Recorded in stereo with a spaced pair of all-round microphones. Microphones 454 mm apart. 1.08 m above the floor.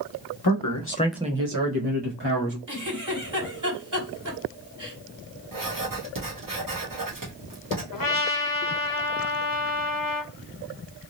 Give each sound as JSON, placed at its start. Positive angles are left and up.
{"t": 0.4, "sound": "a man speaking", "side_deg": 55, "distance_m": 1.0}
{"t": 2.7, "sound": "a giggle", "side_deg": -40, "distance_m": 1.6}
{"t": 5.5, "sound": "writing", "side_deg": -45, "distance_m": 1.2}
{"t": 7.9, "sound": "a trumpet", "side_deg": 45, "distance_m": 0.6}